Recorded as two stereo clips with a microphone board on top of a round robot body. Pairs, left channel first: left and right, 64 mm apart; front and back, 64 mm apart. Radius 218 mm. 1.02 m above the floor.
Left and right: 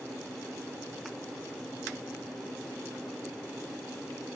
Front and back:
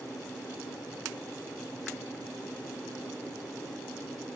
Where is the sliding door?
No sliding door in this recording.